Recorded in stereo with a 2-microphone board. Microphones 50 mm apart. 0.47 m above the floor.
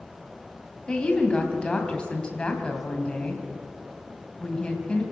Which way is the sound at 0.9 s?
20° left (ahead or behind).